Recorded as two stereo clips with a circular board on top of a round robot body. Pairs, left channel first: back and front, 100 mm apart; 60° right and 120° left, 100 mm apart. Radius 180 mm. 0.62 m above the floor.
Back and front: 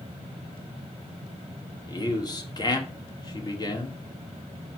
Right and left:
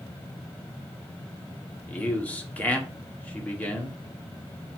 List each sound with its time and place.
1.9 s a man speaking: 135° right, 2 m